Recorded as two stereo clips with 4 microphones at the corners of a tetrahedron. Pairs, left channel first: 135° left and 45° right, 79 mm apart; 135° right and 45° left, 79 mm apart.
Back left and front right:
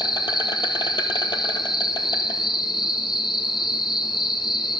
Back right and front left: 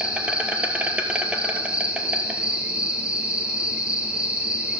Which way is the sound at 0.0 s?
120° left.